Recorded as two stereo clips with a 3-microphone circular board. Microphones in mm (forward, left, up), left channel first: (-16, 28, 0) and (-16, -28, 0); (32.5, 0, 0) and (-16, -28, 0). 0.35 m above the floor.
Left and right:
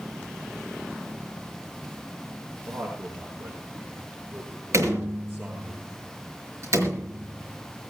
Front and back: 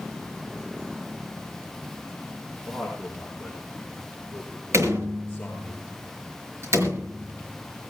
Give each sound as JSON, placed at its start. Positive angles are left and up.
{"t": 2.7, "sound": "a man speaking", "azimuth_deg": -85, "distance_m": 5.0}
{"t": 4.7, "sound": "a door slam", "azimuth_deg": -115, "distance_m": 5.0}